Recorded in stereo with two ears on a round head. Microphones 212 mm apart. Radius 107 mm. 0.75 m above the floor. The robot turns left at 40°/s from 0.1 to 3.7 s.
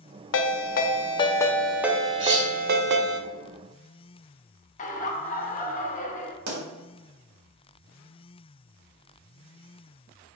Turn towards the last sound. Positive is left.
turn(degrees=-75)  # may be behind; listen again after turning